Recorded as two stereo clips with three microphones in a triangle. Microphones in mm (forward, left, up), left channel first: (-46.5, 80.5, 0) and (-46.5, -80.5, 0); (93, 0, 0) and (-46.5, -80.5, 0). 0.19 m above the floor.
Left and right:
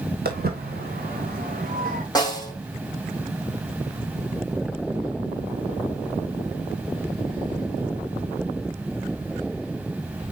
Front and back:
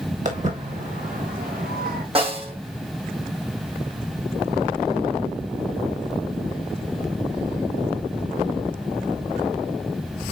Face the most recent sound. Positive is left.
turn(degrees=160)